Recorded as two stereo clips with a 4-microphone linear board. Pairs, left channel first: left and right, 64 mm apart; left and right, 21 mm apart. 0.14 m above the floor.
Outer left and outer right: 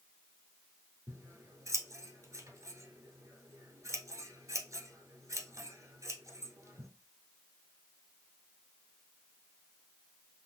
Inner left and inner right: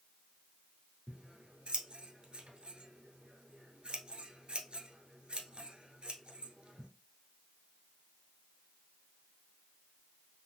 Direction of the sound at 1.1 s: 60° right (ahead or behind).